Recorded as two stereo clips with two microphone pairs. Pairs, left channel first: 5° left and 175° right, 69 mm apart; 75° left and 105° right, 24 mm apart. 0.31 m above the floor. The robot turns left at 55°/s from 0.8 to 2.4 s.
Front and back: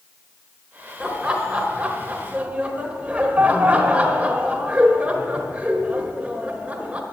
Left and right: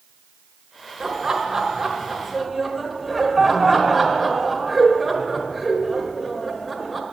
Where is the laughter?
115° right, 0.9 m; by 7.0 s 170° left, 0.9 m.